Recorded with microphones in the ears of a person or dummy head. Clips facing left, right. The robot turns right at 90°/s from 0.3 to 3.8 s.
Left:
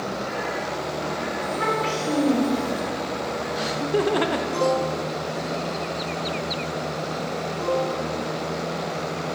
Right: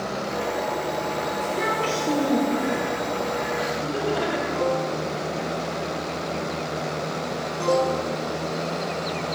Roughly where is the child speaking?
Right.